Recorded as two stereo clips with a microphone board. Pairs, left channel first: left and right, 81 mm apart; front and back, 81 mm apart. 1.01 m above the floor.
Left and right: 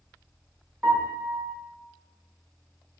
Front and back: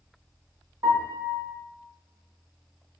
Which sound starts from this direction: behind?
A piano, at 0.8 s.